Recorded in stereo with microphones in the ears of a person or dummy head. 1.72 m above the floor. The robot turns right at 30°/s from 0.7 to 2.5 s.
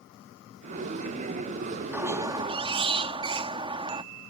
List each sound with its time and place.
1.9 s a squeak: 10° right (ahead or behind); by 4.0 s 25° right (ahead or behind)